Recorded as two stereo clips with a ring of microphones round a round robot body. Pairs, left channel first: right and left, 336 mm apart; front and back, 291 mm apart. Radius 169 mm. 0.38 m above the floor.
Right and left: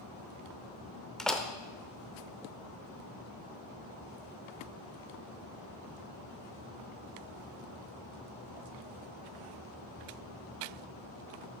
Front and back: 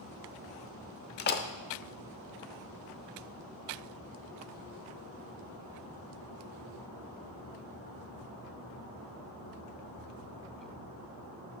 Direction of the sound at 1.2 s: 5° right.